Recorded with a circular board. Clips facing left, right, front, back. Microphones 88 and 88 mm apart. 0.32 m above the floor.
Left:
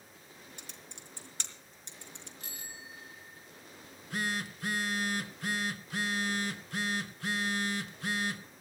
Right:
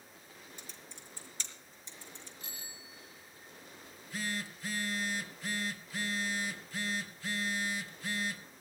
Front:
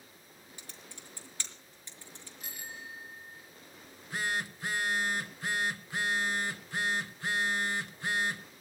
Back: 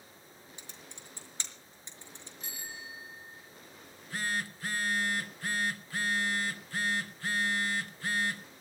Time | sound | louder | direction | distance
0.6 | typing on a keyboard | left 1 dB, front 1 dB | 110° left | 4.5 m
2.4 | a bicycle bell | left 3 dB, even | 90° left | 5.5 m
3.8 | a phone buzzing | left 4 dB, front 1 dB | 70° left | 1.9 m